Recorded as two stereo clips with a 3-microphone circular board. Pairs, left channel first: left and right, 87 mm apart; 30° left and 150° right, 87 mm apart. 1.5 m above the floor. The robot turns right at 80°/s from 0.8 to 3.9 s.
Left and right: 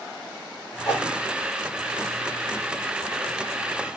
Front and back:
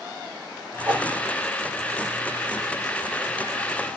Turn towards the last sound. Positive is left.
turn(degrees=25)